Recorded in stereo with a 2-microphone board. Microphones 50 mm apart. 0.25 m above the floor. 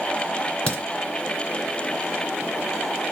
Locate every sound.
0.7 s a crack: 30° left (ahead or behind), 3 m